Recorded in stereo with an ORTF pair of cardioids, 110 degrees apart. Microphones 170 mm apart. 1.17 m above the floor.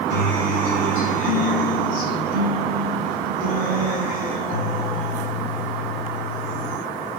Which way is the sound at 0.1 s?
65° left.